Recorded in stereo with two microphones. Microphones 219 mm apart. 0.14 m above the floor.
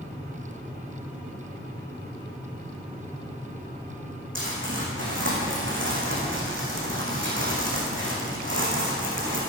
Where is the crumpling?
60° right (ahead or behind), 4 m.